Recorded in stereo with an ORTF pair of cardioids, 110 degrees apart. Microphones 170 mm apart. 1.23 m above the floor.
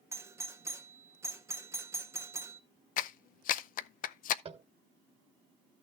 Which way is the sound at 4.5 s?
35° right.